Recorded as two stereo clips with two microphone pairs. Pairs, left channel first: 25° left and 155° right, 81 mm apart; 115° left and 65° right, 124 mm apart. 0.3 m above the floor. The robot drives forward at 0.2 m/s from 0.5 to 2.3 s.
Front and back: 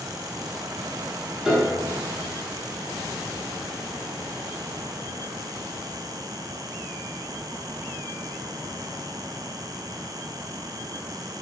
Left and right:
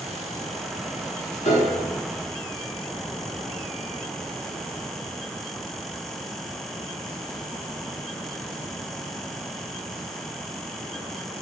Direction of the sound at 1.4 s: 115° left.